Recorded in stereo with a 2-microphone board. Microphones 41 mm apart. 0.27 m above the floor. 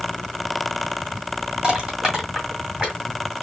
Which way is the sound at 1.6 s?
20° right (ahead or behind).